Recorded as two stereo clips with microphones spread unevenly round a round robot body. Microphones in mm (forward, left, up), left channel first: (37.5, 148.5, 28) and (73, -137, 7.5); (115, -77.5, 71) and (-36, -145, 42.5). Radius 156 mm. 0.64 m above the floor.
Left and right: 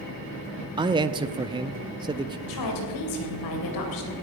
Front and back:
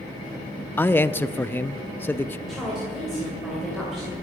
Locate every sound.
0.8 s a man speaking: 60° right, 0.5 m
2.5 s a woman speaking: 115° left, 2.5 m